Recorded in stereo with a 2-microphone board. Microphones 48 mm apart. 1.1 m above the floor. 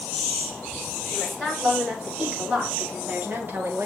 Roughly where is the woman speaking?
Centre.